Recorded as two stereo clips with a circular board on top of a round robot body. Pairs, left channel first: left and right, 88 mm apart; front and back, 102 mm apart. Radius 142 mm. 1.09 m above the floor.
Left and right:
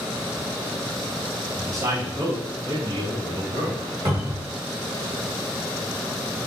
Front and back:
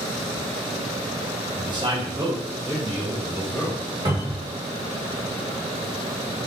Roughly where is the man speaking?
Behind right.